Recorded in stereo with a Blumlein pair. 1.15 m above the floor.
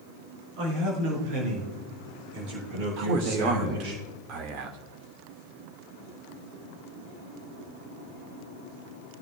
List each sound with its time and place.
0.6 s a man speaking: 40° right, 5 m; by 4.0 s 45° right, 8.5 m
3.0 s a man speaking: 40° right, 1.8 m